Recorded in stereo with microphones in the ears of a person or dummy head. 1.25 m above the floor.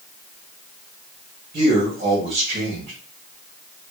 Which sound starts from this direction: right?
A man speaking, at 1.5 s.